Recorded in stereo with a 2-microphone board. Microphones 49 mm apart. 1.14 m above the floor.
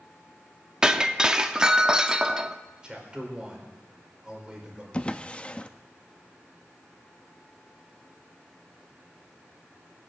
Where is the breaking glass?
15° right (ahead or behind), 0.7 m.